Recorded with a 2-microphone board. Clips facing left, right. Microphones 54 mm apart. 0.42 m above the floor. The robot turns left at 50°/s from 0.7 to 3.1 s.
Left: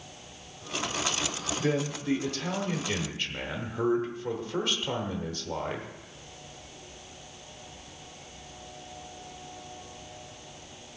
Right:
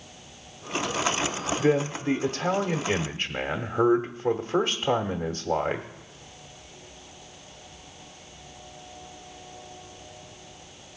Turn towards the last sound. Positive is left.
turn(degrees=-115)